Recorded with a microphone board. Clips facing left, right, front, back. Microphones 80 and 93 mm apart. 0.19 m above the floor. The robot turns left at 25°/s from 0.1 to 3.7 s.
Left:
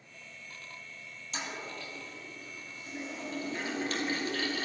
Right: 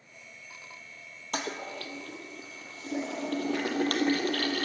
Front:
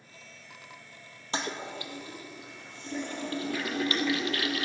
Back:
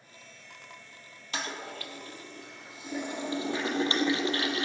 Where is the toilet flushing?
60° right, 1.2 m; by 4.7 s 120° right, 1.2 m.